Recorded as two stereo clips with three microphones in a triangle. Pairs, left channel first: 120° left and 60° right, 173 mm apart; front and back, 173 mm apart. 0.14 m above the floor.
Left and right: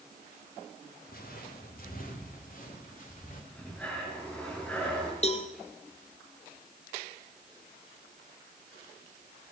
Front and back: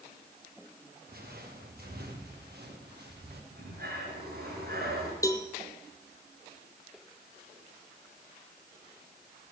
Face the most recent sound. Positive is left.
turn(degrees=70)